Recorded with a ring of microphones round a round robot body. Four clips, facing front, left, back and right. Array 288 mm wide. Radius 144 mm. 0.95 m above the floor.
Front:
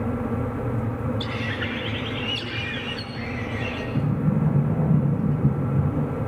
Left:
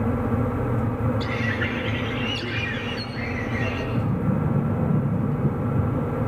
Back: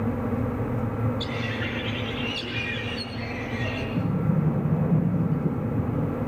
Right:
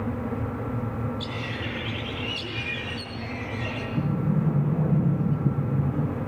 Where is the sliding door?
25° left, 8.5 m.